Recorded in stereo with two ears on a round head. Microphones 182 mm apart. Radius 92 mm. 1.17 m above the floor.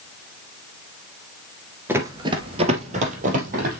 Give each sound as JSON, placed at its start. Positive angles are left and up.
{"t": 1.9, "sound": "running footsteps", "side_deg": -10, "distance_m": 1.3}